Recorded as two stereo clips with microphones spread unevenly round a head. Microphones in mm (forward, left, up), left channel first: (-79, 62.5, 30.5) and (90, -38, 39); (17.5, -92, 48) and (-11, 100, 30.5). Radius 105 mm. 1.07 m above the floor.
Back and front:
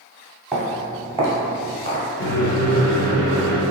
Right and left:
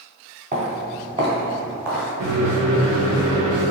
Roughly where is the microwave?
Left.